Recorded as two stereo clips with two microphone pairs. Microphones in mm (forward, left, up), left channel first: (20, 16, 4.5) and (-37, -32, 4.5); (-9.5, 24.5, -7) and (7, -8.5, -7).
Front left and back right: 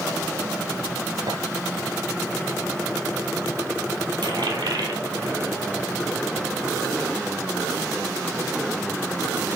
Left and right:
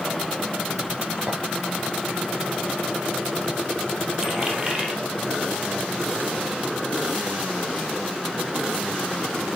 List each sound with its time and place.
1.3 s a clink: 125° right, 4 m
4.2 s a dropped coin: 135° right, 2.5 m